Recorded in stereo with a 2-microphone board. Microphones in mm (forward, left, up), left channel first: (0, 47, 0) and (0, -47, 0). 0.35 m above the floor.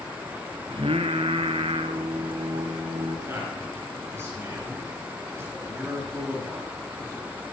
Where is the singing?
70° right (ahead or behind), 0.8 m.